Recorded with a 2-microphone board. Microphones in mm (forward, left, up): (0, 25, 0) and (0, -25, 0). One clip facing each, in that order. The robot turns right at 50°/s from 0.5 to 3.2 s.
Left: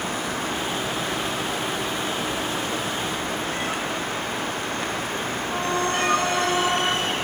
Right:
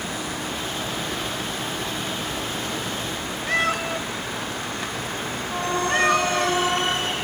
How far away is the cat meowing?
About 1.3 m.